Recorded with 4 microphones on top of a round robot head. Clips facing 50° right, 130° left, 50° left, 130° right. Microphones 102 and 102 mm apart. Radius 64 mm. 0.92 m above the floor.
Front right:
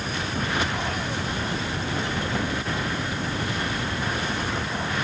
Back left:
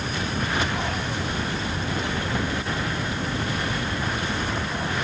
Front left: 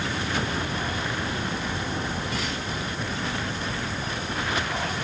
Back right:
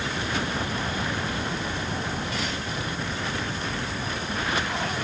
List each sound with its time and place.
Only background noise.